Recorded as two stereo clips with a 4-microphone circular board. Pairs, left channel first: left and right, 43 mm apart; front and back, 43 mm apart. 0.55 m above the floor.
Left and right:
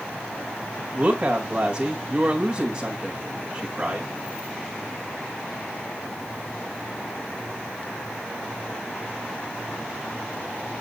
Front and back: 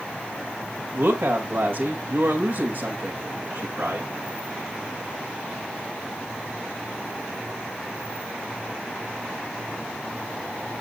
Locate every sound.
0.9 s a woman speaking: 150° right, 2 m